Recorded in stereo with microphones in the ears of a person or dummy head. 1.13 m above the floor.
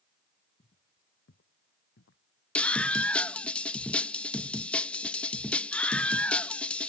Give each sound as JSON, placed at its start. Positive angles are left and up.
{"t": 0.6, "sound": "footsteps", "side_deg": 35}
{"t": 2.5, "sound": "a scream", "side_deg": 5}